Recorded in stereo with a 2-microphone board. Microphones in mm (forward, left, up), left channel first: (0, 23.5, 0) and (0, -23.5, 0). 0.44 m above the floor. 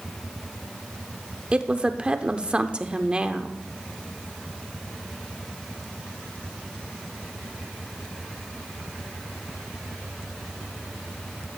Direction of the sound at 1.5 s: 20° right (ahead or behind).